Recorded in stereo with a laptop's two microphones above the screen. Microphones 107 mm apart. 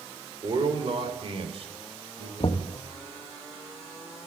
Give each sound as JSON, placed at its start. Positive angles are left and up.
{"t": 0.4, "sound": "a man speaking", "side_deg": -45, "distance_m": 3.0}
{"t": 2.4, "sound": "knocking", "side_deg": 55, "distance_m": 0.6}